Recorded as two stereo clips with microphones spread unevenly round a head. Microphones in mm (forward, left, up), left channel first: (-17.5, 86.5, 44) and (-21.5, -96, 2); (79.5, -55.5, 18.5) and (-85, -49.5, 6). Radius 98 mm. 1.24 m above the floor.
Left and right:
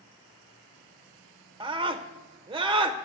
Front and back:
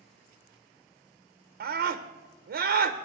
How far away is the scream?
About 0.7 m.